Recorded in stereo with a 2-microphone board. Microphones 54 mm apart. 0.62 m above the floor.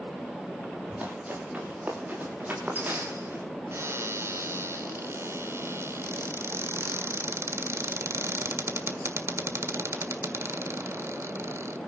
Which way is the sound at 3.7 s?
55° right (ahead or behind).